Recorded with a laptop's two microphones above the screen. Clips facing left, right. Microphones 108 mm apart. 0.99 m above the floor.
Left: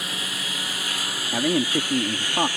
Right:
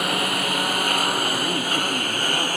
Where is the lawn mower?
60° right (ahead or behind); by 2.6 s 50° right (ahead or behind).